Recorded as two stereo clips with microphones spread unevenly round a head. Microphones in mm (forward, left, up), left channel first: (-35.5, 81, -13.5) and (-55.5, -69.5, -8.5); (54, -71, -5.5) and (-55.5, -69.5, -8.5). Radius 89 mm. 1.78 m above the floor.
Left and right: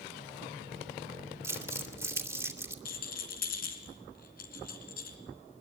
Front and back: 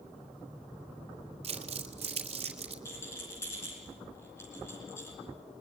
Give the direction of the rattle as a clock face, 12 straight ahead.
10 o'clock.